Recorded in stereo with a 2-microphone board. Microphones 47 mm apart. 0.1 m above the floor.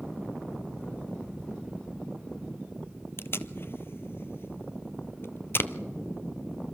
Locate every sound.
3.2 s tape being pulled: 55° left (ahead or behind), 0.7 m